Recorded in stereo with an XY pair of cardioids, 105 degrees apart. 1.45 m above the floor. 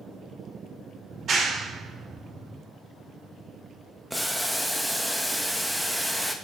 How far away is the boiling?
About 1.7 m.